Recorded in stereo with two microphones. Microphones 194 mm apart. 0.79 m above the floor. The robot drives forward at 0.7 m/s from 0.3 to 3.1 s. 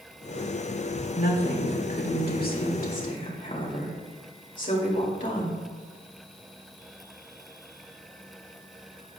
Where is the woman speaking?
55° left (ahead or behind), 1.6 m; by 5.6 s 45° left (ahead or behind), 1.9 m.